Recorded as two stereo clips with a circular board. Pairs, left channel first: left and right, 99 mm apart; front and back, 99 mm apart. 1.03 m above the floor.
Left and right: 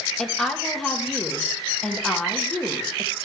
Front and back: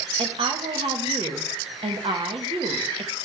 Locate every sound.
0.2 s a woman speaking: 175° left, 1.4 m